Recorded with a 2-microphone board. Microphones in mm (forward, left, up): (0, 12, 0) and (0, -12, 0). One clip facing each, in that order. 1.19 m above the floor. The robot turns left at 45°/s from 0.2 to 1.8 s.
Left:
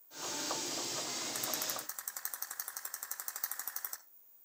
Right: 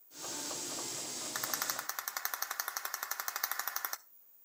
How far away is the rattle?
About 0.7 m.